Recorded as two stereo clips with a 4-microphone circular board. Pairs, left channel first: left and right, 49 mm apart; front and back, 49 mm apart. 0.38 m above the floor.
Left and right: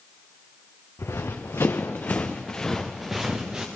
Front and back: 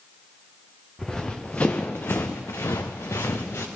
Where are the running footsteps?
80° left, 2.5 m; by 3.7 s 20° right, 2.5 m.